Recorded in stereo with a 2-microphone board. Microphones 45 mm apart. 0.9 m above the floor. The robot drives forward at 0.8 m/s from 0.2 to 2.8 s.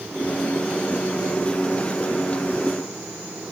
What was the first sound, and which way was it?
Only background noise.